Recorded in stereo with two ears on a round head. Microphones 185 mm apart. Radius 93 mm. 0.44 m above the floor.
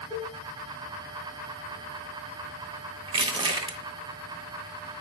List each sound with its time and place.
0.1 s a cowbell: 15° right (ahead or behind), 1.4 m
3.1 s crushing: 25° right (ahead or behind), 0.6 m